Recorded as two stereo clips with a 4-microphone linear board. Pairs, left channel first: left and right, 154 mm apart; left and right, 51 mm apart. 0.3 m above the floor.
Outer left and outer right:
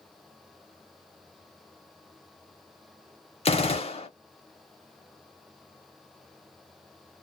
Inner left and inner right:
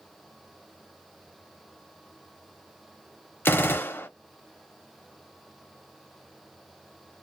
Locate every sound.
3.5 s a gunshot: 40° left (ahead or behind), 0.8 m